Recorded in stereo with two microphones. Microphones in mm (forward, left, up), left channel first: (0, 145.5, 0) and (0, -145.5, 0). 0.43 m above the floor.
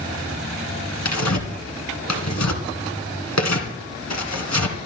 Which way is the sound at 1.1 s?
70° left (ahead or behind).